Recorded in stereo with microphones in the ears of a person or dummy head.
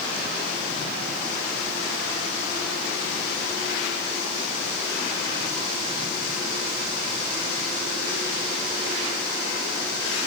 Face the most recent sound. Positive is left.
No sound to turn to.